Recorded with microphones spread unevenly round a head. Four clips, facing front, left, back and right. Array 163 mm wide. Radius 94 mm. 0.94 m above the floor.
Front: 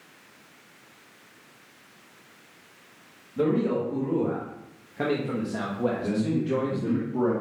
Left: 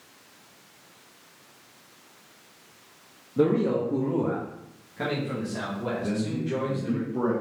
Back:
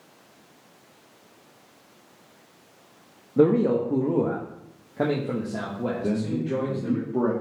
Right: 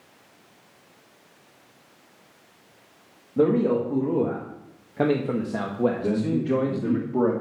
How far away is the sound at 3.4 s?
About 1.7 m.